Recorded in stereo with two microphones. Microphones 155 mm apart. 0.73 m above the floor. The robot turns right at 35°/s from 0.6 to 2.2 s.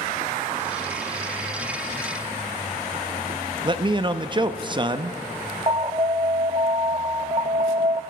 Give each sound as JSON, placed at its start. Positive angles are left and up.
{"t": 3.6, "sound": "a man speaking", "side_deg": -30, "distance_m": 0.5}
{"t": 5.7, "sound": "an alarm", "side_deg": -35, "distance_m": 0.6}